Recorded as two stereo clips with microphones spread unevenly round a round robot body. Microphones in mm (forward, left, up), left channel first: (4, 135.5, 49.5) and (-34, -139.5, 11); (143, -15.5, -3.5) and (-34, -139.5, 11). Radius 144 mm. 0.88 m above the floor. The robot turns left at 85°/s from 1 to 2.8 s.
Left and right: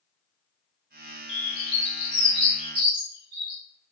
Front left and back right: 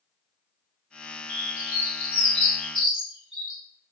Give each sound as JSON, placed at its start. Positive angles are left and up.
{"t": 1.3, "sound": "a bird", "azimuth_deg": 75, "distance_m": 1.5}